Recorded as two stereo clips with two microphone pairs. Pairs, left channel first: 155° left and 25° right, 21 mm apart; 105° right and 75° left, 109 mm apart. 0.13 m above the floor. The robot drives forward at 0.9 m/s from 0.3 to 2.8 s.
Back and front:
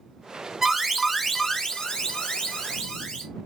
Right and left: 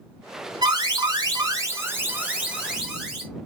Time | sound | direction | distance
0.6 | an alarm | 40° left | 1.1 m